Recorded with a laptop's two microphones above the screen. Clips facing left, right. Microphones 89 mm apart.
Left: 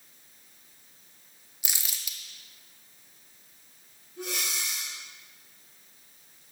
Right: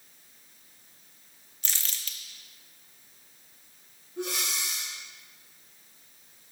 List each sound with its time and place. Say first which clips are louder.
1.6 s crumpling: even; 10° left (ahead or behind), 0.8 m
4.2 s breathing: right 2 dB; 65° right (ahead or behind), 2 m